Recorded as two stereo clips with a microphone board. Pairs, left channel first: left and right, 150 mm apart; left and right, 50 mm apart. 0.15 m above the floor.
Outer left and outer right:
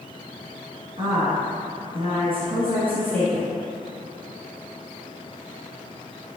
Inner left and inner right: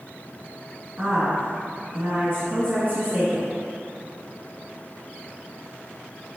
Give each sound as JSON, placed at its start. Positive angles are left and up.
{"t": 1.0, "sound": "a woman speaking", "side_deg": -45, "distance_m": 1.6}